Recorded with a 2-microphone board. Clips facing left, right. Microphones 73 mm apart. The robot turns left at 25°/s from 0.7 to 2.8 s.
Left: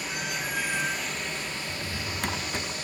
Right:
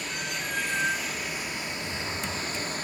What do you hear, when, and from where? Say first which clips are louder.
0.0 s running water: left 1 dB; 5° left, 1.0 m; by 2.9 s 50° right, 1.0 m
1.7 s a drawer: right 1 dB; 55° left (ahead or behind), 0.6 m; by 2.8 s 60° left (ahead or behind), 0.6 m